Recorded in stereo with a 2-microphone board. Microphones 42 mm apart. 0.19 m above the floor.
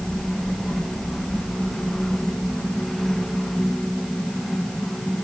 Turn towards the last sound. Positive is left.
No sound to turn to.